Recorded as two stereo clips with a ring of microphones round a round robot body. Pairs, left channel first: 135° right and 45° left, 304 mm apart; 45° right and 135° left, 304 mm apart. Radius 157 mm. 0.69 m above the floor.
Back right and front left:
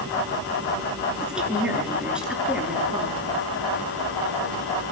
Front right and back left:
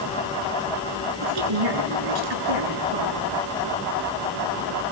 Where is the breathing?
I don't hear breathing.